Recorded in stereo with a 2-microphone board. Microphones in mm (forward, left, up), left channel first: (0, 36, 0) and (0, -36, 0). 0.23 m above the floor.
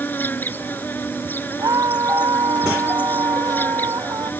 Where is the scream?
55° right (ahead or behind).